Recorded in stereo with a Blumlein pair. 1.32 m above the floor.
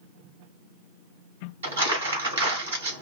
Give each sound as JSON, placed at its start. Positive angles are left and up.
{"t": 1.6, "sound": "crumpling", "azimuth_deg": -65, "distance_m": 1.5}